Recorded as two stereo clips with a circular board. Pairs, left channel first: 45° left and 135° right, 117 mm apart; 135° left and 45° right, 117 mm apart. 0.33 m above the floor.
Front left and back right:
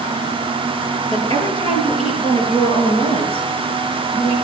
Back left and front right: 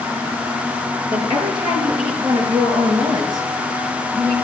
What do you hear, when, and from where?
1.1 s a woman speaking: 5° right, 5 m; by 4.3 s 15° left, 4 m